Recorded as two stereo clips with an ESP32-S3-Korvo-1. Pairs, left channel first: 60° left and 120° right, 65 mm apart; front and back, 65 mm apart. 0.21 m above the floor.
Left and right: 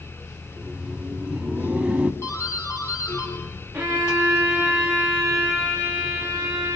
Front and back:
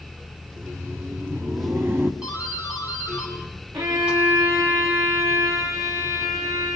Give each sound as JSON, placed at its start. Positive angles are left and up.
{"t": 0.5, "sound": "laughter", "azimuth_deg": 175, "distance_m": 1.6}
{"t": 2.2, "sound": "a doorbell", "azimuth_deg": 105, "distance_m": 8.5}
{"t": 3.7, "sound": "a violin", "azimuth_deg": 170, "distance_m": 8.0}